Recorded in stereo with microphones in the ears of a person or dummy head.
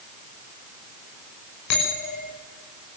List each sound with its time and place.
1.7 s a bell: 65° left (ahead or behind), 6.5 m